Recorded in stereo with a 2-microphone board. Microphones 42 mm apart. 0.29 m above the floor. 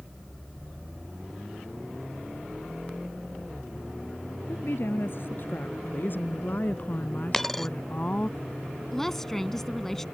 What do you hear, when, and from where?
4.5 s a woman speaking: 60° left (ahead or behind); by 8.3 s 30° left (ahead or behind)
7.3 s a dropped coin: 5° left (ahead or behind)
8.9 s a woman speaking: 10° left (ahead or behind)